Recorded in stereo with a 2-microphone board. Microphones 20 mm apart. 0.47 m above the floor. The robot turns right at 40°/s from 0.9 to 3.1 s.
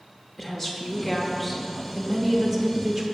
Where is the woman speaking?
150° left, 0.9 m; by 3.0 s 125° right, 0.9 m.